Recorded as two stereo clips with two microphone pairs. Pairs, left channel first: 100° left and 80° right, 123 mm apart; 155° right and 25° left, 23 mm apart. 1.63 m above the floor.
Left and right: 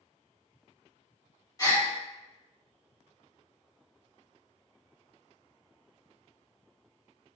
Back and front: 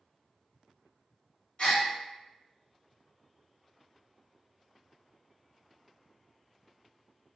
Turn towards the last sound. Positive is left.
turn(degrees=160)